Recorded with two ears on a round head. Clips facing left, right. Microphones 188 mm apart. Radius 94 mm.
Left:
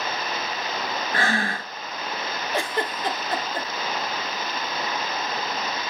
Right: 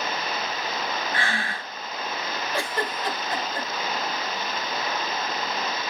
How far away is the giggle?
About 0.7 m.